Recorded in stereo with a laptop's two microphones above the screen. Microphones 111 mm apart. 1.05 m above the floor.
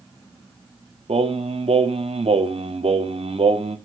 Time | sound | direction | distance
1.1 | singing | 70° right (ahead or behind) | 1.0 m